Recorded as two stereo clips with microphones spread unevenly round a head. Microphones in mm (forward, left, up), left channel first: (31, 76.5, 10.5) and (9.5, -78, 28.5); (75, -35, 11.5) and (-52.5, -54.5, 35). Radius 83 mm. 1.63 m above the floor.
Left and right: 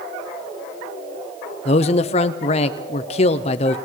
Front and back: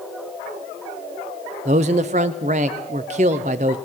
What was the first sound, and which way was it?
A man speaking, 135° left.